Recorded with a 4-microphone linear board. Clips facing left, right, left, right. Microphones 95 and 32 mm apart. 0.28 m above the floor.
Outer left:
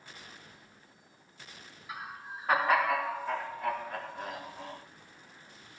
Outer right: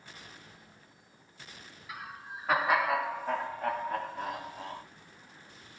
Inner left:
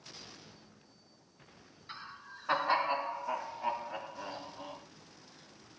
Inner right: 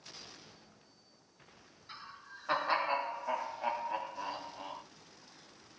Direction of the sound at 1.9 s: 20° left (ahead or behind).